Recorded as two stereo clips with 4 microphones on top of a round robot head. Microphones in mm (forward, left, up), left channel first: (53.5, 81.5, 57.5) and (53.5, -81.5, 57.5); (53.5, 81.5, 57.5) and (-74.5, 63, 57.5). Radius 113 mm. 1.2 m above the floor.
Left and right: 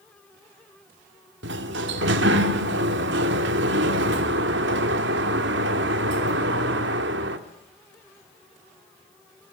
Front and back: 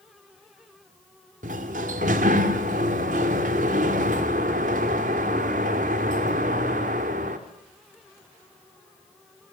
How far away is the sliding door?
About 1.6 m.